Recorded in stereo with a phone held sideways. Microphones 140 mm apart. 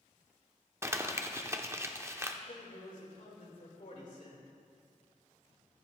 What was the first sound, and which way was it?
Crumpling, 20° right (ahead or behind).